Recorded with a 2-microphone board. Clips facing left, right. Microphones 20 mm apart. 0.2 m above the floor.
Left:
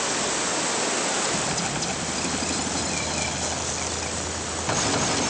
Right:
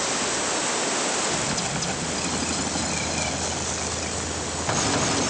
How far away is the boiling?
No boiling in this recording.